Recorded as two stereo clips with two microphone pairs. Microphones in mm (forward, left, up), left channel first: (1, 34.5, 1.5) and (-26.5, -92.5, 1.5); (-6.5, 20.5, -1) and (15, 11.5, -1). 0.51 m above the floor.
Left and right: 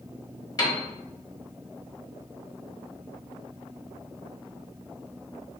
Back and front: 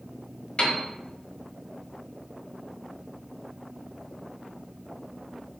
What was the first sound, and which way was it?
A piano, 135° left.